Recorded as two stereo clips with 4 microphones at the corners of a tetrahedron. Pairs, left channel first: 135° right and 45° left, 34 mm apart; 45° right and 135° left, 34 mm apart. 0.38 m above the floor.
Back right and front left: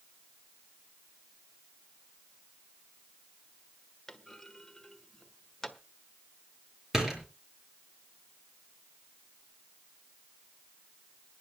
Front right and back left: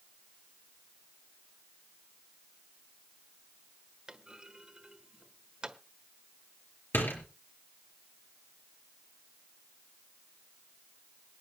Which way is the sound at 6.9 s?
30° right.